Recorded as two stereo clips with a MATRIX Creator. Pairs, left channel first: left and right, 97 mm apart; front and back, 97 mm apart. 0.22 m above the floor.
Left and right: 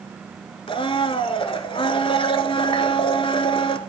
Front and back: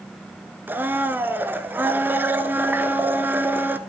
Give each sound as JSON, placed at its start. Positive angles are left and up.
{"t": 0.7, "sound": "a blender", "azimuth_deg": 110, "distance_m": 0.7}